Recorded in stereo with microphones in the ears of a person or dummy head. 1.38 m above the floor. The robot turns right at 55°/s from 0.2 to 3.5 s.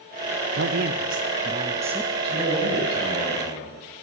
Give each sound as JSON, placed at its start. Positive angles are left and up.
{"t": 0.5, "sound": "a man speaking", "azimuth_deg": -90, "distance_m": 0.5}
{"t": 2.2, "sound": "a man speaking", "azimuth_deg": -30, "distance_m": 8.5}